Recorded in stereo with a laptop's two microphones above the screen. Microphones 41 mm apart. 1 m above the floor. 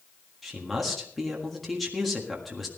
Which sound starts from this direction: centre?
A man speaking, at 0.4 s.